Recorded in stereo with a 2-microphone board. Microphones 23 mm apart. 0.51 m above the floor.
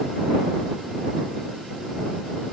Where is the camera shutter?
I don't hear a camera shutter.